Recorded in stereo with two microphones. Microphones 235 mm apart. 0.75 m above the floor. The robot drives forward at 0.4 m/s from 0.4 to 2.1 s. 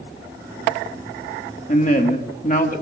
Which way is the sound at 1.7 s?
35° left (ahead or behind).